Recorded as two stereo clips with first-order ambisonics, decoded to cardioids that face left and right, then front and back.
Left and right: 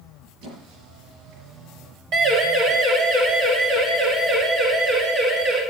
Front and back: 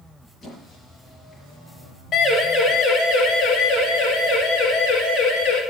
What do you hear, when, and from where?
0.4 s a squeak: 75° right, 5.5 m
2.1 s a siren: 60° right, 3 m; by 5.6 s 35° right, 7 m